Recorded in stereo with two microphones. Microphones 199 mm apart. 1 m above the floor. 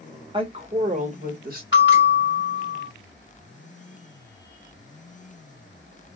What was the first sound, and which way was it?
A woman speaking, 25° right (ahead or behind).